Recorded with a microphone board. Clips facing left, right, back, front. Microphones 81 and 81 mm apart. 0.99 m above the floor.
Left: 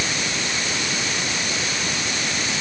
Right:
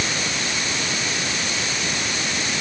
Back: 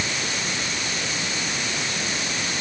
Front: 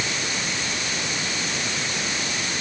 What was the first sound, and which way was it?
Only background noise.